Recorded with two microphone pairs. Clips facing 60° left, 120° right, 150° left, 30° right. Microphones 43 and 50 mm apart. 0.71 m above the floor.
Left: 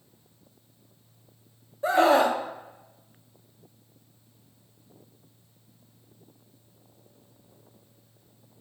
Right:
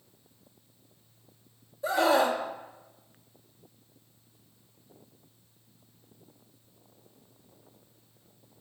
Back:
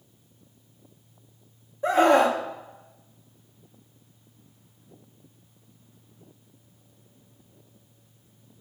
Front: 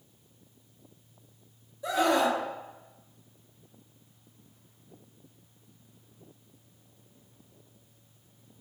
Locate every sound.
1.8 s a scream: 100° left, 1.0 m